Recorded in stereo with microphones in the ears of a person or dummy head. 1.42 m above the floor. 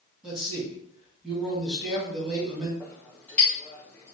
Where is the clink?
10° left (ahead or behind), 1.3 m.